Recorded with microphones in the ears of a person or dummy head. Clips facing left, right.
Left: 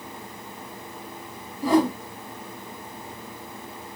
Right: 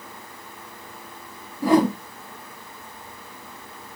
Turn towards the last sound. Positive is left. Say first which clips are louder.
# right 2 dB
turn(degrees=-45)  # may be behind; listen again after turning